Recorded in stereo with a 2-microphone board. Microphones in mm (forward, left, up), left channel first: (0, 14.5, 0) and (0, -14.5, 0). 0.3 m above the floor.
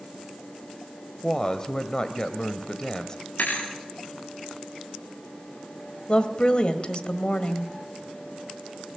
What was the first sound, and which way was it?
A woman speaking, 25° left (ahead or behind).